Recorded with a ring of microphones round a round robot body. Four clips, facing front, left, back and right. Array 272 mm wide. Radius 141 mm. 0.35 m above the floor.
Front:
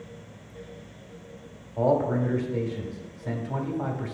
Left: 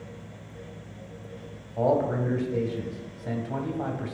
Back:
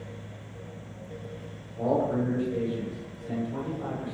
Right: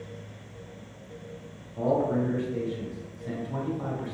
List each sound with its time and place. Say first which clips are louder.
1.8 s a man speaking: left 1 dB, front 3 dB; 45° left, 2.5 m